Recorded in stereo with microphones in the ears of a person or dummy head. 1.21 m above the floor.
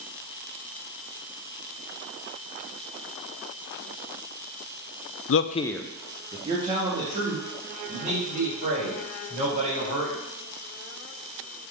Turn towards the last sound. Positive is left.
turn(degrees=-40)  # may be behind; listen again after turning